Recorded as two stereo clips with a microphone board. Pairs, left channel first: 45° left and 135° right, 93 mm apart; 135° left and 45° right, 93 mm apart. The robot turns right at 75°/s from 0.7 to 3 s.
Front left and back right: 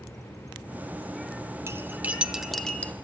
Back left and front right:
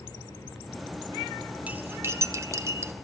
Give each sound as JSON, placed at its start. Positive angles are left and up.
{"t": 1.7, "sound": "cutlery clinking", "azimuth_deg": -110, "distance_m": 0.5}